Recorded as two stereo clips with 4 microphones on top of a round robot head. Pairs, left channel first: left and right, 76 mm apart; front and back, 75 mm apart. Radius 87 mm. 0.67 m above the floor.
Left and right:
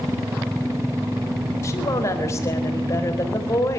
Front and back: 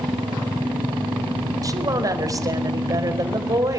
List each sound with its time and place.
1.6 s a woman speaking: 145° left, 4 m